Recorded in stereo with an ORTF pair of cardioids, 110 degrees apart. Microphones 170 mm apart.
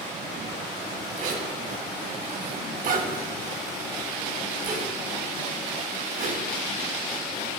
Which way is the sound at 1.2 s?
65° right.